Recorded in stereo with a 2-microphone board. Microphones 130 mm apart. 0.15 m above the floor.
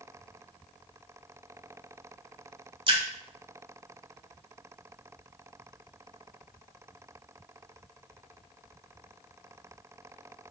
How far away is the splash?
About 0.6 m.